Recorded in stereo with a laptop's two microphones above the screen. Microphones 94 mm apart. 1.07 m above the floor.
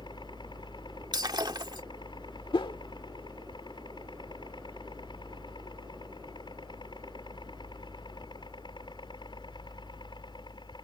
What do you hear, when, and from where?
0.0 s a helicopter: 55° left (ahead or behind)
1.1 s breaking glass: 50° right (ahead or behind)
2.5 s a whoosh: 60° left (ahead or behind)